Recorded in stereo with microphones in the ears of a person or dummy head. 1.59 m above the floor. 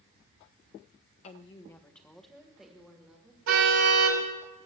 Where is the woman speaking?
35° left (ahead or behind), 0.7 m; by 3.4 s 5° right (ahead or behind), 2.5 m.